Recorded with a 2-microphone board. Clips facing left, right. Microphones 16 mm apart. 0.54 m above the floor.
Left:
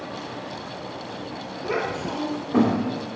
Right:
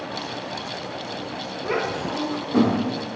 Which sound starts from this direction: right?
A child speaking, at 1.6 s.